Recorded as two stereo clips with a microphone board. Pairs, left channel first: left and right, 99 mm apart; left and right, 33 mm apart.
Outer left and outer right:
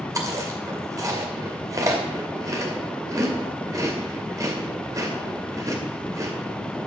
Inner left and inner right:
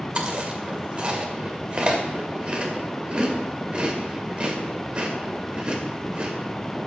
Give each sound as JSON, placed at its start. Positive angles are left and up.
{"t": 0.1, "sound": "chewing", "side_deg": -35, "distance_m": 2.0}